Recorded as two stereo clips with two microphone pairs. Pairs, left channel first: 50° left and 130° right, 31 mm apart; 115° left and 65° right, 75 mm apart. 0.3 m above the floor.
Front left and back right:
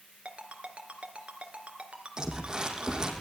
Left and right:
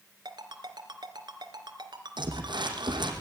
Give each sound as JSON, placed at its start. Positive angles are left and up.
{"t": 0.2, "sound": "a ringtone", "azimuth_deg": -80, "distance_m": 2.5}
{"t": 2.2, "sound": "crumpling", "azimuth_deg": -60, "distance_m": 4.5}